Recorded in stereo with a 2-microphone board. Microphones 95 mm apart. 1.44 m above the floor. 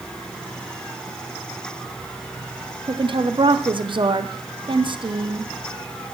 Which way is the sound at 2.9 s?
55° right (ahead or behind).